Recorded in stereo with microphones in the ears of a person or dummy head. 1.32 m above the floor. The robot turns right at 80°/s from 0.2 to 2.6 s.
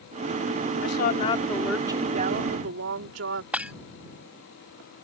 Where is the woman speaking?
110° left; by 3.4 s 105° right.